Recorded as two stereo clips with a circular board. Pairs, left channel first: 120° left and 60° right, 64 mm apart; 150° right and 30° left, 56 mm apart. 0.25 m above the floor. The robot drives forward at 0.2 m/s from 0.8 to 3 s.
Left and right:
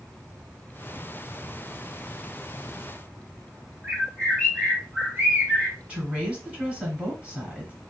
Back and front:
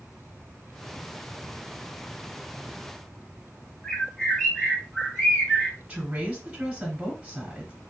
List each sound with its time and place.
3.8 s a bird: 95° right, 1.8 m
5.9 s a woman speaking: 20° right, 1.2 m